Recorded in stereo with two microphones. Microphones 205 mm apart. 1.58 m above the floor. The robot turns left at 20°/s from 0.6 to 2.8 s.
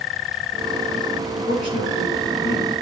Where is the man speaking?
55° left (ahead or behind), 3.5 m; by 2.7 s 80° left, 3.5 m.